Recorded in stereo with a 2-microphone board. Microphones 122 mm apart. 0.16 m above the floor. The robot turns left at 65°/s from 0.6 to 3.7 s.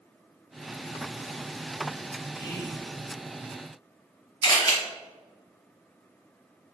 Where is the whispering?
25° left (ahead or behind), 1.2 m; by 2.8 s 15° left (ahead or behind), 1.2 m.